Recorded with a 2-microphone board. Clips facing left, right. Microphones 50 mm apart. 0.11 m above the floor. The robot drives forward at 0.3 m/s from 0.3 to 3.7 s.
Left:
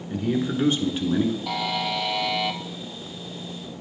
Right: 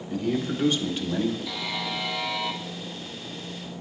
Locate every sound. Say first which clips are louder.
0.1 s a man speaking: left 2 dB; 20° left (ahead or behind), 1.1 m
1.5 s a buzzer: left 5 dB; 65° left (ahead or behind), 0.7 m; by 2.6 s 70° left (ahead or behind), 0.7 m